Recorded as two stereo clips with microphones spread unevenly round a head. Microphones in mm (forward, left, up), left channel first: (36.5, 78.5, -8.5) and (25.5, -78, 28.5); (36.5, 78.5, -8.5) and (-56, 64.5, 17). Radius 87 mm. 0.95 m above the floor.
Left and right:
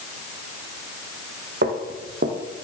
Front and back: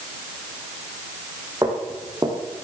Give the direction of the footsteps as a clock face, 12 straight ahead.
4 o'clock.